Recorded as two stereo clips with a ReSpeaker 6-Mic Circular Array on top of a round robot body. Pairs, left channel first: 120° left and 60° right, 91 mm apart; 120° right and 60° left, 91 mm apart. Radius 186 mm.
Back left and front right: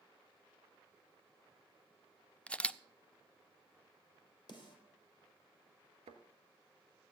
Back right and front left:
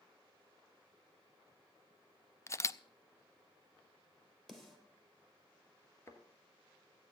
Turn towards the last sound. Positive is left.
turn(degrees=-55)